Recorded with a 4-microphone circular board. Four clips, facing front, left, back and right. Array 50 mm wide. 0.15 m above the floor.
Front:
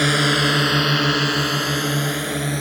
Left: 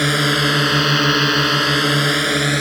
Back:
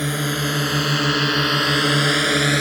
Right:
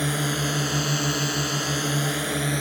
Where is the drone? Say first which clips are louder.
Left 9 dB, front 5 dB; 50° left; by 2.6 s 140° left.